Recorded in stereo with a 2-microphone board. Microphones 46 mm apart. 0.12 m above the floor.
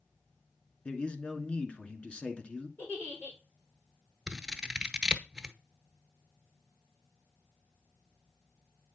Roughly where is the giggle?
Left.